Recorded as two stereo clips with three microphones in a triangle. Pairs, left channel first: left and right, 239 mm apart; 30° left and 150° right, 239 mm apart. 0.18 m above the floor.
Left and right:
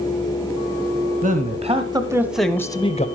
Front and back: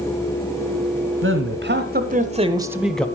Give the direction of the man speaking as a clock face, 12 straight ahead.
5 o'clock.